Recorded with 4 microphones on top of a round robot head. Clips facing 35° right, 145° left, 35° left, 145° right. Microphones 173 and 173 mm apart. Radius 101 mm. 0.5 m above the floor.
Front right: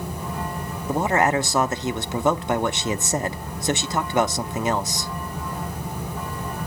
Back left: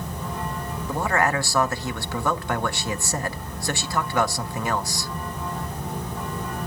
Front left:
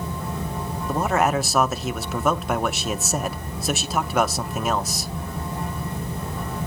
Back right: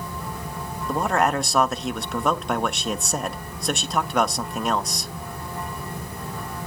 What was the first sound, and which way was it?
A man speaking, 50° right.